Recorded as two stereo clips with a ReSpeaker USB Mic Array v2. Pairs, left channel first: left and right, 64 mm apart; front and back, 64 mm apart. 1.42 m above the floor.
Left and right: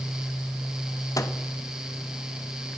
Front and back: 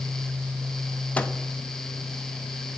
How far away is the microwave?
About 1.0 m.